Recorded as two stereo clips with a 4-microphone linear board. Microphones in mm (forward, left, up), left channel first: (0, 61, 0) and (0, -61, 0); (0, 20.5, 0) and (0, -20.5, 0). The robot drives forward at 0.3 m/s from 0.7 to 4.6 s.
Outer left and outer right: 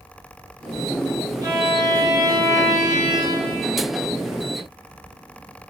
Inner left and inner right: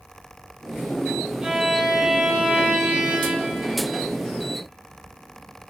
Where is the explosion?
I don't hear an explosion.